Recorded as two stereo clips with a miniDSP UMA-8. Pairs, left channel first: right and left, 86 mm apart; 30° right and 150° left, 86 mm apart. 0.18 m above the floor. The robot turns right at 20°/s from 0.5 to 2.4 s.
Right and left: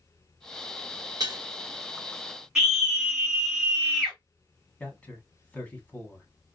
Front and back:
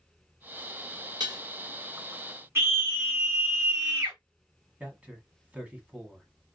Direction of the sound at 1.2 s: 130° left.